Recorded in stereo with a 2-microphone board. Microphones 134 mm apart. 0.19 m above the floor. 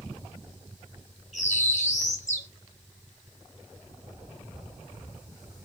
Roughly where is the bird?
Left.